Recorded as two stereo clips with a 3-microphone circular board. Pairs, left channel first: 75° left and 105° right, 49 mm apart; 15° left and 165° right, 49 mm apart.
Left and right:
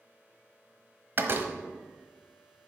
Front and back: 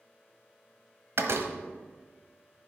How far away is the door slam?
About 1.2 m.